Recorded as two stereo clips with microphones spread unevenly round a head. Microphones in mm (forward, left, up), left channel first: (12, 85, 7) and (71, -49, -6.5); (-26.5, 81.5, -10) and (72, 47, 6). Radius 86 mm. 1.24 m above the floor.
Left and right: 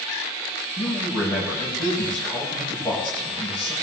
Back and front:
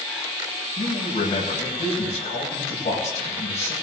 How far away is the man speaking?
About 7 m.